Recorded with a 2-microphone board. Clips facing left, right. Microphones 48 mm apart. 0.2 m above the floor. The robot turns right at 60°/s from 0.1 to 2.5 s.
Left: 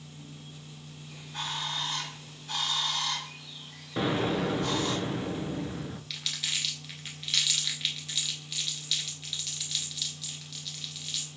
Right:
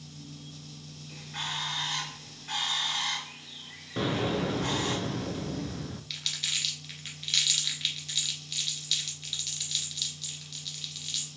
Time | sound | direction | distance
1.1 | a bird | 145° right | 3 m
4.0 | an explosion | 10° left (ahead or behind) | 0.5 m
6.1 | crumpling | 5° left (ahead or behind) | 1.0 m